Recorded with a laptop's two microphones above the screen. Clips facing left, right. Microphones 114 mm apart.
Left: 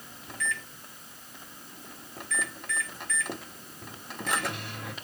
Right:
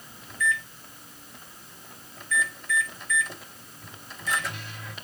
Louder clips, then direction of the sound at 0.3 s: Right 6 dB; 65° left (ahead or behind).